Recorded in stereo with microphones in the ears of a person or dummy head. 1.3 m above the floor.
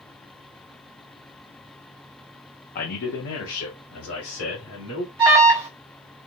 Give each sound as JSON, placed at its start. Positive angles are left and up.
{"t": 2.8, "sound": "a man speaking", "side_deg": 50, "distance_m": 0.7}
{"t": 5.2, "sound": "an alarm", "side_deg": -20, "distance_m": 1.7}